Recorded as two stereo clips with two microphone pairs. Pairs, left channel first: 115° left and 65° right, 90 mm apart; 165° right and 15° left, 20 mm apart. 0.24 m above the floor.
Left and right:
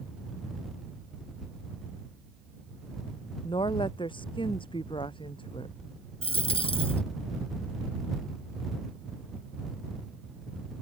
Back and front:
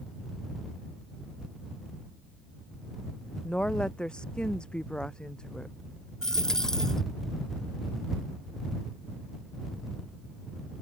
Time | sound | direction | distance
3.4 | a woman speaking | 145° left | ?
6.2 | a dropped coin | 125° left | ?